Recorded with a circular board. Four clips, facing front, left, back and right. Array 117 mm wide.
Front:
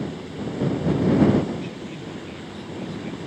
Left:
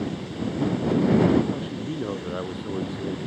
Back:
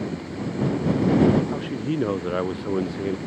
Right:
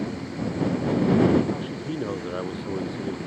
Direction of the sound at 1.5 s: 175° right.